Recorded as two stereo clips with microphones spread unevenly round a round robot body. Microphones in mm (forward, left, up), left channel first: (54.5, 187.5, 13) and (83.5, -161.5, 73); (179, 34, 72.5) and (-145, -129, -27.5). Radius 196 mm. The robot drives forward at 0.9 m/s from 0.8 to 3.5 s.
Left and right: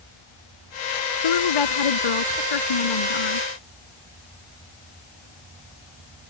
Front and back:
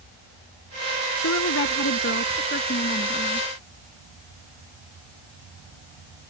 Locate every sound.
1.2 s a woman speaking: 85° left; by 3.5 s 100° left